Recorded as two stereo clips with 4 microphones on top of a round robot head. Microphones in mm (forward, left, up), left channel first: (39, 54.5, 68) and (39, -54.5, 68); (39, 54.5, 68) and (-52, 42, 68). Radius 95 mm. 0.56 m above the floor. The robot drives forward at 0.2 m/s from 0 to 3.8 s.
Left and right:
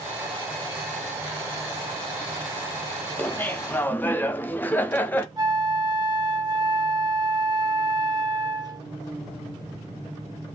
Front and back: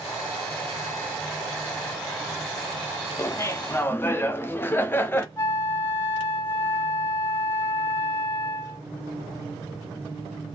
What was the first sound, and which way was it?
Laughter, 25° left.